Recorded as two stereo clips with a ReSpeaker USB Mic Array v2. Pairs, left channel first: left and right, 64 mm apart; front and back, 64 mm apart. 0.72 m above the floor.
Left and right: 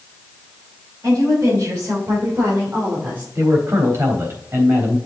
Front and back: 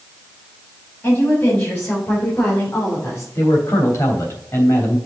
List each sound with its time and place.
1.0 s a woman speaking: 50° right, 4.5 m; by 3.2 s 30° right, 2.5 m
3.4 s a man speaking: 40° right, 3 m